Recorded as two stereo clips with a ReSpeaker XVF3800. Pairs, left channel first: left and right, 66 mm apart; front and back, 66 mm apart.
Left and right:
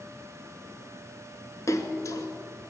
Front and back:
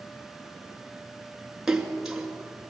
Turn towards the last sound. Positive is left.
turn(degrees=100)